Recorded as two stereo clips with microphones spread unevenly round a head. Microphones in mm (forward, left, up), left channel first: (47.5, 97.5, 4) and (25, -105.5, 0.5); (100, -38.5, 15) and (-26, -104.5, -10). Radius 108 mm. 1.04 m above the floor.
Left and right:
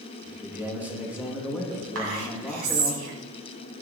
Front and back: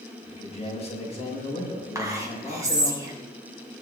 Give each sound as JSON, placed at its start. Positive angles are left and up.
{"t": 0.2, "sound": "a man speaking", "azimuth_deg": -15, "distance_m": 8.5}
{"t": 1.9, "sound": "whispering", "azimuth_deg": -85, "distance_m": 8.0}